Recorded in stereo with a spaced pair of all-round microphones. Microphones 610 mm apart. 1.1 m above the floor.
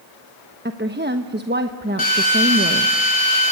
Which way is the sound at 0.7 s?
15° right (ahead or behind).